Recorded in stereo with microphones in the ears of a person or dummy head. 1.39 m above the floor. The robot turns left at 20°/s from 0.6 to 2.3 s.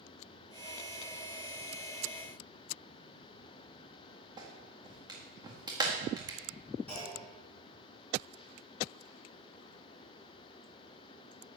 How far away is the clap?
About 1.7 m.